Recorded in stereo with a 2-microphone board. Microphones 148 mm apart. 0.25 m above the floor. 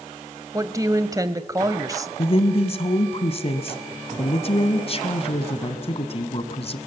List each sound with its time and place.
0.5 s a woman speaking: 25° right (ahead or behind), 1.0 m
2.2 s a woman speaking: 45° left (ahead or behind), 1.6 m